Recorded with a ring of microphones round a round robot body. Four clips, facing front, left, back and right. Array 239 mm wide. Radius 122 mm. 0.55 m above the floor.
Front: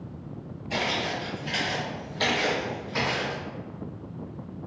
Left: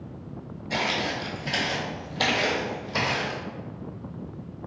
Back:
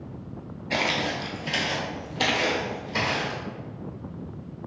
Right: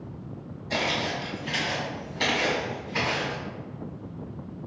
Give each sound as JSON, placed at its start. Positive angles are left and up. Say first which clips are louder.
{"t": 0.7, "sound": "footsteps", "louder": "even, back 2 dB", "azimuth_deg": -160, "distance_m": 0.5}